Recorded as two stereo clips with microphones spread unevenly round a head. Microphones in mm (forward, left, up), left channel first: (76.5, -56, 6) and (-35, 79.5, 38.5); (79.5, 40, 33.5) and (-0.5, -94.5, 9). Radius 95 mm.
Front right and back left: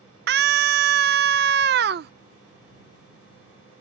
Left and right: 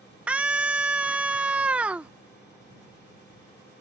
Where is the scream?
150° left.